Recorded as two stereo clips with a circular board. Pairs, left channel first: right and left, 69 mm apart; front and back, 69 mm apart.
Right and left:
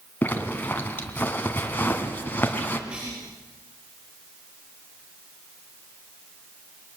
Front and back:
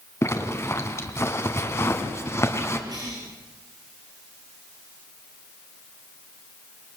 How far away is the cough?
About 5.5 m.